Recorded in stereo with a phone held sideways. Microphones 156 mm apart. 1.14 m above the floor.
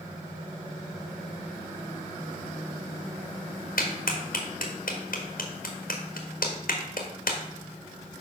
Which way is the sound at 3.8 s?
80° left.